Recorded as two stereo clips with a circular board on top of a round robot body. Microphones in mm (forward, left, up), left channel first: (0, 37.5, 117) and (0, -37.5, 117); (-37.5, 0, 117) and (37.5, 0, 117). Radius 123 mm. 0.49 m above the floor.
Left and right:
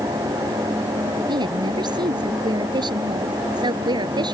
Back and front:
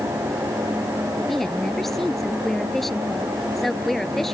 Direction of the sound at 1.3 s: 95° right.